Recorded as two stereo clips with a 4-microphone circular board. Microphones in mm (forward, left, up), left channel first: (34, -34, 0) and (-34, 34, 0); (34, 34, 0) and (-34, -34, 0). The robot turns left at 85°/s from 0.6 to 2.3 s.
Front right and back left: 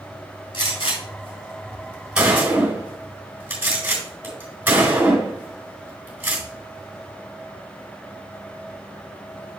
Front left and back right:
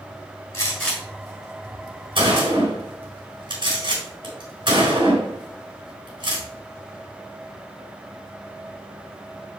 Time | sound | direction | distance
0.5 | a gunshot | 10° right | 4 m